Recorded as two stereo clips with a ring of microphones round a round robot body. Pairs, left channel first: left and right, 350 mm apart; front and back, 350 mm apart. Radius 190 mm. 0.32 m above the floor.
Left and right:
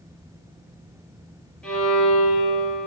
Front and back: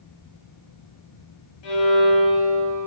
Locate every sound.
1.6 s a violin: 5° left, 5 m